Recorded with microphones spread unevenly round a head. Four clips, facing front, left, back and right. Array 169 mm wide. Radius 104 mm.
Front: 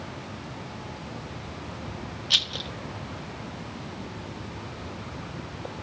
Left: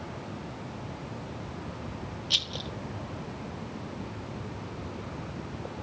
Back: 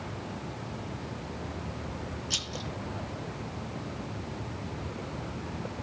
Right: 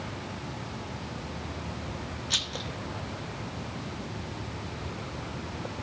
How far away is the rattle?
About 0.6 m.